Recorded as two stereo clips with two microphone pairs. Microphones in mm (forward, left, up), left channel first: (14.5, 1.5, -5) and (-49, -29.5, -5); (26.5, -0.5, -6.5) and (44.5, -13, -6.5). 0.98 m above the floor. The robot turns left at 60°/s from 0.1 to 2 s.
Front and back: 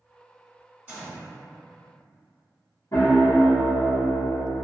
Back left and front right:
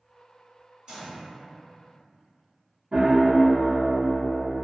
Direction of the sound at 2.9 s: Straight ahead.